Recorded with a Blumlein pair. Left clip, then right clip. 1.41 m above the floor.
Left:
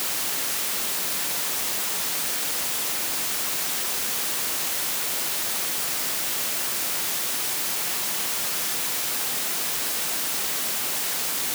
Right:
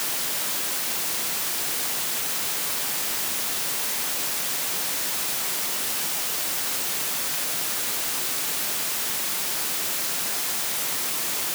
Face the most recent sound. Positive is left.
No sound to turn to.